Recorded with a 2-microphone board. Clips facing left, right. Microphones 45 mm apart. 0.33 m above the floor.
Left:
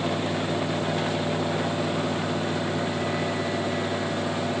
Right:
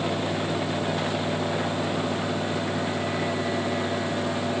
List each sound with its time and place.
Only background noise.